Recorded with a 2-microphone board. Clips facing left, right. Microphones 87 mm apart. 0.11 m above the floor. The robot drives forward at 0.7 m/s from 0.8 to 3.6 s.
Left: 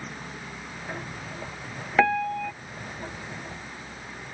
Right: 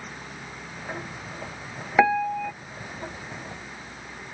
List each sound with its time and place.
2.0 s a piano: 10° right (ahead or behind); by 2.5 s 5° right (ahead or behind)